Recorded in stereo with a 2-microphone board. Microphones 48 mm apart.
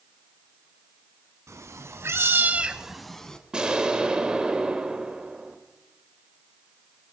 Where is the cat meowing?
85° right, 1.4 m; by 3.4 s 10° left (ahead or behind), 1.3 m.